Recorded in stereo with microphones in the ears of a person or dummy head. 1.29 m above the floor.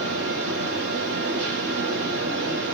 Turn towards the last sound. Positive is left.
turn(degrees=-75)  # may be behind; listen again after turning